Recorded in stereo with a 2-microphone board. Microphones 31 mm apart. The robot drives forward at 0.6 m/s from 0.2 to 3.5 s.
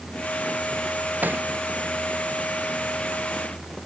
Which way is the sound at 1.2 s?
75° right (ahead or behind).